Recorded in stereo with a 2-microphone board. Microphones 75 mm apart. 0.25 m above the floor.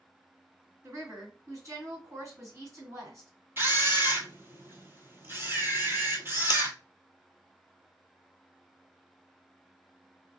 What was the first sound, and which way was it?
A woman speaking, 45° right (ahead or behind).